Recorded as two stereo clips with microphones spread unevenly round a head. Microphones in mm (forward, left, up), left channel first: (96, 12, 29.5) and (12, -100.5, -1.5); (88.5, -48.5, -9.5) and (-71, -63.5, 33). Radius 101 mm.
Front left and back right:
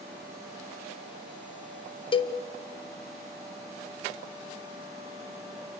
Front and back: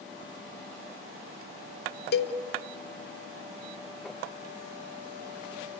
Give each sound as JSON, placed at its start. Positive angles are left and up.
{"t": 2.1, "sound": "a cowbell", "azimuth_deg": -5, "distance_m": 1.1}